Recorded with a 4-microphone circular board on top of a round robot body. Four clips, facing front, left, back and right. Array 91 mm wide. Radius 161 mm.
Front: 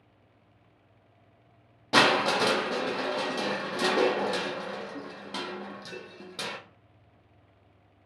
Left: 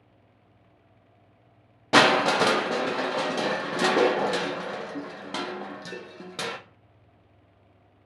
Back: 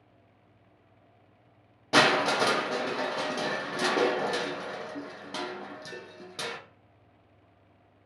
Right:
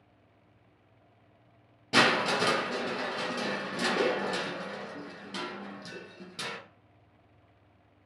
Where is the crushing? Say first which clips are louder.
Left 6 dB, even; 100° left, 0.5 m.